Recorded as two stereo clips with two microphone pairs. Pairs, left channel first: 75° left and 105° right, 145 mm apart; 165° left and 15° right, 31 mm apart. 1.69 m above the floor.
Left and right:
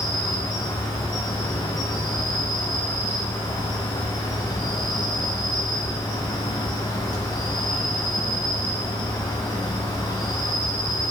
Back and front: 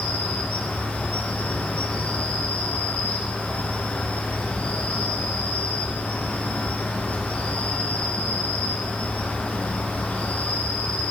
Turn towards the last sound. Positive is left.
turn(degrees=135)